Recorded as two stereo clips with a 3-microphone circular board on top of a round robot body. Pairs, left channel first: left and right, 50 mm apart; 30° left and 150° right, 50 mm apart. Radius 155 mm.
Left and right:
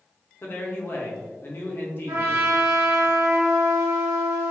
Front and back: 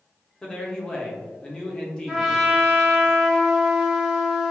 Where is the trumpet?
70° right, 1.4 m.